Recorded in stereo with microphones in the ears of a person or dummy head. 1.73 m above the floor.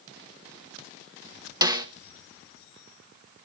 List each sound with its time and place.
1.6 s a snare drum: 20° right (ahead or behind), 1.4 m